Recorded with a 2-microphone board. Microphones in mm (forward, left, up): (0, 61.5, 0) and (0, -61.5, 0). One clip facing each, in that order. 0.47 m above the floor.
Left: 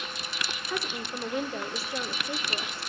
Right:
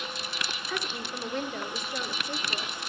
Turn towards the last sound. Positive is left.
turn(degrees=10)  # may be behind; listen again after turning